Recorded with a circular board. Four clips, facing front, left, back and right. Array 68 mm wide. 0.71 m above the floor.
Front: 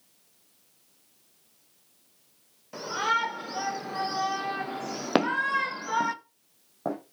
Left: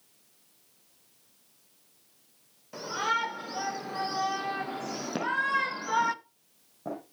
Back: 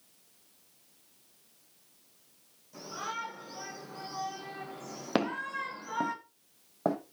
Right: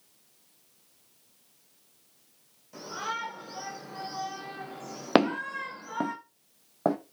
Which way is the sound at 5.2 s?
70° right.